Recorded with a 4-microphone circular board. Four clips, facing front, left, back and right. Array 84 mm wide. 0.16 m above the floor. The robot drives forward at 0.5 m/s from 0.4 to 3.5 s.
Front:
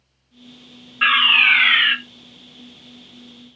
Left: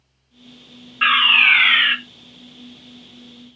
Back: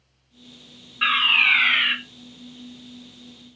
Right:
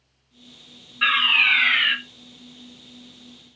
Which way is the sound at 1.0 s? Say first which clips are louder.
Left 5 dB, front 4 dB; 55° left.